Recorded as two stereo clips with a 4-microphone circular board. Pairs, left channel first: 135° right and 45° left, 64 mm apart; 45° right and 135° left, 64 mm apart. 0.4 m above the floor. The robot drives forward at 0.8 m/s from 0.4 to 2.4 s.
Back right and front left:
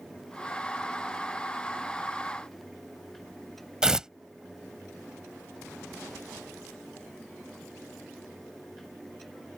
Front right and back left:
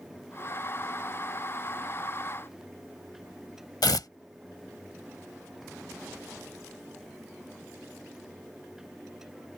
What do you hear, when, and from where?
3.8 s tearing paper: 35° right